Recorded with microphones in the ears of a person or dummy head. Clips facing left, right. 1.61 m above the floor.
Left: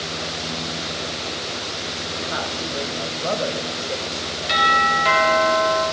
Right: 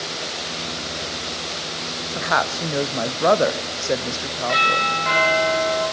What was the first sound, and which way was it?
A woman speaking, 80° right.